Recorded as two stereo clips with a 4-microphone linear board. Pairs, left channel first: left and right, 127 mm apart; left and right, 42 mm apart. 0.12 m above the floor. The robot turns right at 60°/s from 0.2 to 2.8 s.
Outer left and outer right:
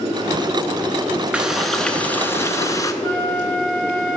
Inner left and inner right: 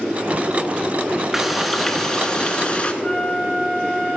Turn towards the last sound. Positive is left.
turn(degrees=15)  # may be behind; listen again after turning